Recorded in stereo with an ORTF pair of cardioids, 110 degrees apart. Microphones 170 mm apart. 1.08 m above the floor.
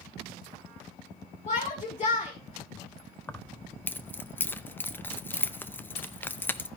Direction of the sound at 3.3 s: 10° left.